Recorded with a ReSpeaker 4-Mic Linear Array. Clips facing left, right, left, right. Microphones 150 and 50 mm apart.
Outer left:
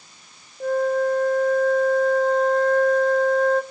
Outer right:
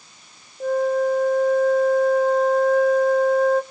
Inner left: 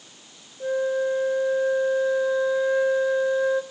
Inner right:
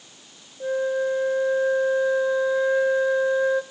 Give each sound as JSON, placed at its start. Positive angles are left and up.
{"t": 0.6, "sound": "a flute", "side_deg": -5, "distance_m": 0.6}